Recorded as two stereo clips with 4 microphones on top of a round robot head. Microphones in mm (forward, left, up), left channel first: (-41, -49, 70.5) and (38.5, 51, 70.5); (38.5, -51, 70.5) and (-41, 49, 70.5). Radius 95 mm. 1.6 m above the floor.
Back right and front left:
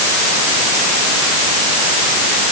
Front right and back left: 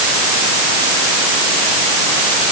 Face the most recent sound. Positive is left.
No sound to turn to.